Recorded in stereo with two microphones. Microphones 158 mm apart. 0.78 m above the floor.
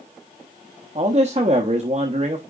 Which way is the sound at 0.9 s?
45° right (ahead or behind).